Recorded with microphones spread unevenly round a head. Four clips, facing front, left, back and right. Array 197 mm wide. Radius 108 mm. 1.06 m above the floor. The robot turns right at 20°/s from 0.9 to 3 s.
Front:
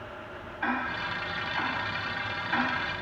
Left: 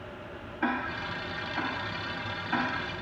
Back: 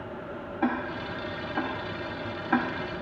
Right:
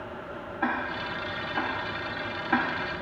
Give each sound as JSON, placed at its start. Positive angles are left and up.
{"t": 0.6, "sound": "ticking", "azimuth_deg": -175, "distance_m": 0.6}